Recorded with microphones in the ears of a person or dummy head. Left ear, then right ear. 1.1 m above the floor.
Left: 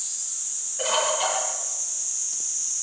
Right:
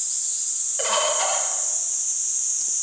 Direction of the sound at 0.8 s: 40° right (ahead or behind).